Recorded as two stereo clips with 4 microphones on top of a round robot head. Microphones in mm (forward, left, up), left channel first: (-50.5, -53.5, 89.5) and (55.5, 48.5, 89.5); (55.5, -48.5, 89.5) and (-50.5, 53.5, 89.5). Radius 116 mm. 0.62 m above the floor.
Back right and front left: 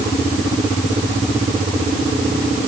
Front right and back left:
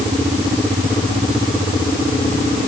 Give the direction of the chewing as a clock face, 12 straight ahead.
I don't hear chewing.